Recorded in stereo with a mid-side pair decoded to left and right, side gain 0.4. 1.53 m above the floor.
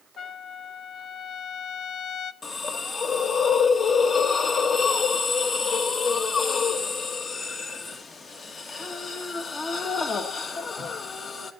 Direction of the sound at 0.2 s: 70° left.